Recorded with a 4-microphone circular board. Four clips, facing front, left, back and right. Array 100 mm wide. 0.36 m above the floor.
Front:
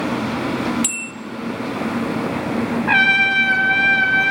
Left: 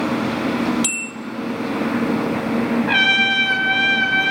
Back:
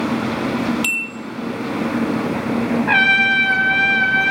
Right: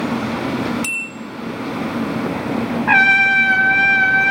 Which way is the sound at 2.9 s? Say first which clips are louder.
Right 5 dB, even; 85° right.